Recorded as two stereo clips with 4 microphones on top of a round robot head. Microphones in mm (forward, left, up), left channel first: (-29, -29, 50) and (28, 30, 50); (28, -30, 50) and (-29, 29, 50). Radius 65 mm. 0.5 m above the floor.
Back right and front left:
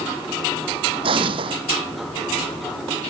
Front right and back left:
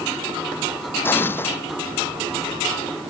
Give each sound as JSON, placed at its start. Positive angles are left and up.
{"t": 1.0, "sound": "an explosion", "azimuth_deg": 20}